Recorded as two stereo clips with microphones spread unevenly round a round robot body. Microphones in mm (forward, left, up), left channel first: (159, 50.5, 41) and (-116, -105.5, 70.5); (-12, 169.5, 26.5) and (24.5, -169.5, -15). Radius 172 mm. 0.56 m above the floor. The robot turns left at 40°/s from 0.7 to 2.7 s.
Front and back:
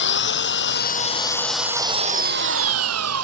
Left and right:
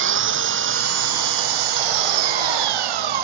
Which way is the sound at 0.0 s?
25° right.